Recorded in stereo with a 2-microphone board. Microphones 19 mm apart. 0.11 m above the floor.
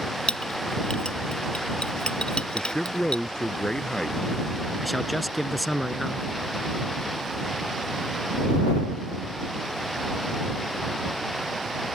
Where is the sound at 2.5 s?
35° left (ahead or behind).